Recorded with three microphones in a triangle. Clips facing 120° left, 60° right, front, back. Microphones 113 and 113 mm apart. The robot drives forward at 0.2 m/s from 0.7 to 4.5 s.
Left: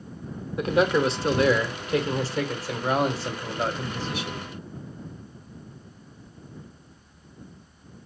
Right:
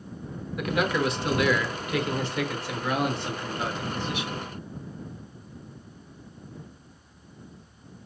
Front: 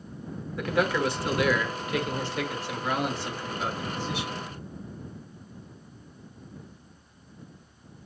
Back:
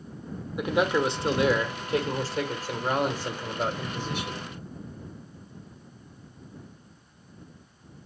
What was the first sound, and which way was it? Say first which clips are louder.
A man speaking: left 4 dB, back 2 dB; 130° left.